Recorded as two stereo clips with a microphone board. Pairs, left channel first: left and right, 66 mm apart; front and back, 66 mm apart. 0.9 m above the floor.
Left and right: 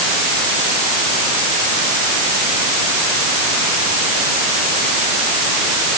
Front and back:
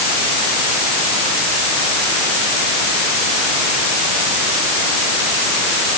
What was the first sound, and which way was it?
Only background noise.